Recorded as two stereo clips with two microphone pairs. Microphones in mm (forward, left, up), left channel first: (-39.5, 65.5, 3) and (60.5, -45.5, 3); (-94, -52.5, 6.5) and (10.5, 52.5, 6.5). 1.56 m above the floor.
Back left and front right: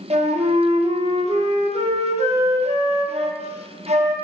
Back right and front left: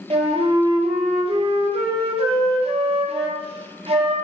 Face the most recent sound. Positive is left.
turn(degrees=0)